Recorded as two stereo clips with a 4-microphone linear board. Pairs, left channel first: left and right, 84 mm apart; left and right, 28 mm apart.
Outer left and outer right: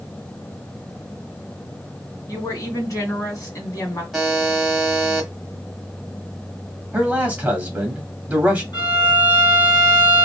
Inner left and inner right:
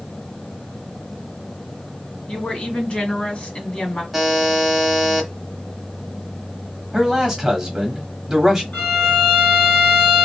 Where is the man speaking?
20° right (ahead or behind), 1.3 m.